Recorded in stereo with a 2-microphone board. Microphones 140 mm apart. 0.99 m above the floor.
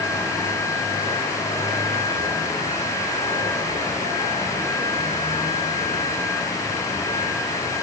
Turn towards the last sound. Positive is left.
No sound to turn to.